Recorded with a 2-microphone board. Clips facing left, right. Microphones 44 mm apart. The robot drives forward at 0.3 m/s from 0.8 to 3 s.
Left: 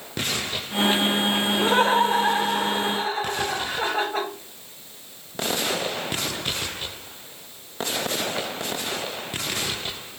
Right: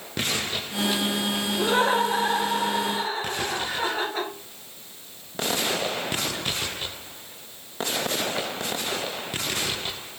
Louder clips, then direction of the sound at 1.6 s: Left 2 dB; 35° left (ahead or behind).